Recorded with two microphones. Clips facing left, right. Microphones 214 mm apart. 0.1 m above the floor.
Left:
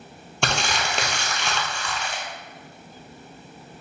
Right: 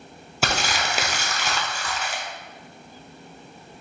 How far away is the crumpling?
About 0.8 m.